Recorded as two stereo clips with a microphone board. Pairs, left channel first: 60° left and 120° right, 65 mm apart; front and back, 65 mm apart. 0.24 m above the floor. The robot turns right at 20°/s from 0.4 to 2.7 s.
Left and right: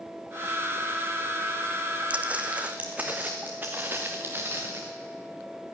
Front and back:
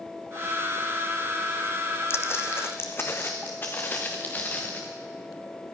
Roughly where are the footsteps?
Ahead right.